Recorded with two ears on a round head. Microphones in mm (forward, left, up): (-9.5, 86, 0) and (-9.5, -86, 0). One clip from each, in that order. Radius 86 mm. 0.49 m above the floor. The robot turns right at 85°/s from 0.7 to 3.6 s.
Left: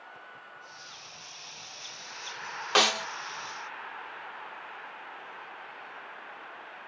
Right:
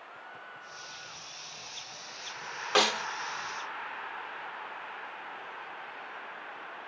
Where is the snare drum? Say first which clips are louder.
Left 2 dB; 20° left (ahead or behind); by 3.1 s 35° left (ahead or behind).